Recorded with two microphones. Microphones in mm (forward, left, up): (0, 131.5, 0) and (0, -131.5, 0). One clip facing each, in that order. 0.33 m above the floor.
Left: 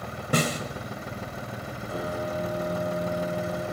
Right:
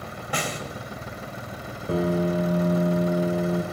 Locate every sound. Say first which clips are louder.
0.3 s a snare drum: left 5 dB; 45° left (ahead or behind), 2.0 m
1.9 s a piano: right 9 dB; 70° right (ahead or behind), 2 m